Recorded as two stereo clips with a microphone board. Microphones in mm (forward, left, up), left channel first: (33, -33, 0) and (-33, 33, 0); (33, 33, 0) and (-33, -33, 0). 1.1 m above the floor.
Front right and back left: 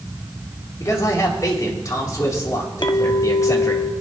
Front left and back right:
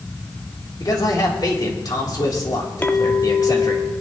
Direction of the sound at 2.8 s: 25° right.